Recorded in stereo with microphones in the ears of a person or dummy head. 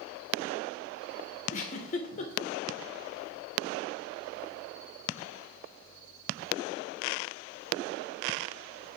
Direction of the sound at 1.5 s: 40° left (ahead or behind).